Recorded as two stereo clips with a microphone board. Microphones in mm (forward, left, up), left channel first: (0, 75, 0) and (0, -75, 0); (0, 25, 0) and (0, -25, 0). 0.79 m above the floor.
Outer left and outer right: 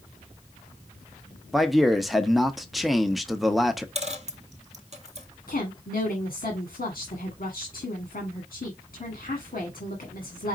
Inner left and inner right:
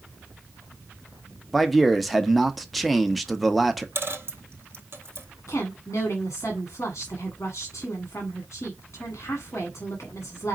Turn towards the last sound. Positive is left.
turn(degrees=70)  # may be behind; listen again after turning